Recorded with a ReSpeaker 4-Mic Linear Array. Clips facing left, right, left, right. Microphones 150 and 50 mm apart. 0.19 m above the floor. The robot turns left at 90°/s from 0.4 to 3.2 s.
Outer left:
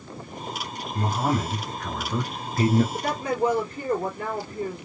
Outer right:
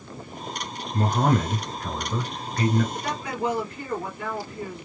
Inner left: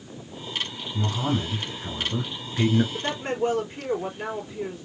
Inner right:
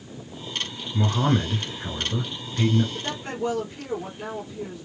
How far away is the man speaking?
About 1.9 m.